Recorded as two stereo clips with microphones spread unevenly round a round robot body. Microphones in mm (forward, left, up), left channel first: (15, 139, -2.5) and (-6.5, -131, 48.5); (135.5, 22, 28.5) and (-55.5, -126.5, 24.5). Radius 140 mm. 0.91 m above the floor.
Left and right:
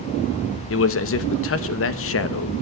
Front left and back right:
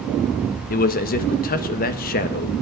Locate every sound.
0.7 s a man speaking: 90° left, 0.8 m